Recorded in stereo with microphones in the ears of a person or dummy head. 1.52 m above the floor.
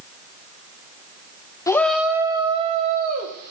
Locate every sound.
1.7 s a shout: 15° left (ahead or behind), 0.7 m; by 3.5 s 50° right (ahead or behind), 1.2 m